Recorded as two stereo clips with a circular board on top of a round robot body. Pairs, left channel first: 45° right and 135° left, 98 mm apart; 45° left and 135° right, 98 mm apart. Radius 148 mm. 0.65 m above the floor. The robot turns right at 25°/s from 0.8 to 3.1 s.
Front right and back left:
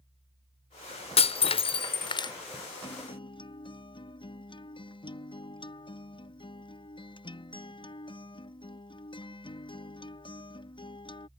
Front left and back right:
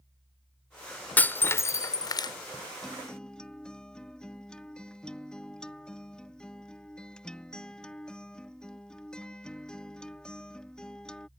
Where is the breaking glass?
30° right; by 2.3 s straight ahead.